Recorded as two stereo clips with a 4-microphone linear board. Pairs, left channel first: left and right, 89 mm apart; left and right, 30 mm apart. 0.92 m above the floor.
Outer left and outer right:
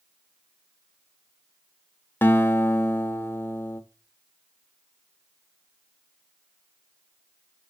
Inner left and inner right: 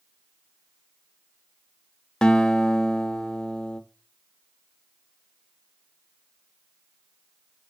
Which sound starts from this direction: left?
A guitar, at 2.2 s.